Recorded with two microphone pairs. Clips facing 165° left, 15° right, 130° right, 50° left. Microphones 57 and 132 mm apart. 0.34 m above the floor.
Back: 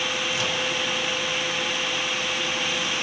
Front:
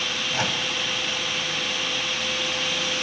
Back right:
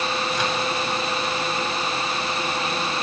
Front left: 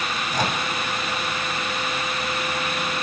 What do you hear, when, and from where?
0.3 s a microwave: 15° left, 2.0 m